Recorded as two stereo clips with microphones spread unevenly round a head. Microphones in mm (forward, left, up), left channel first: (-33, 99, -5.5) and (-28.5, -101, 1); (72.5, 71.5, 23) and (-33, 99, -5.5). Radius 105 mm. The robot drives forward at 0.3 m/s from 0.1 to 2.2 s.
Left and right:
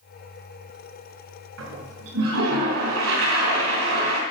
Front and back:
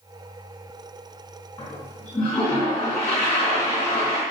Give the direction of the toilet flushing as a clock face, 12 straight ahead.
3 o'clock.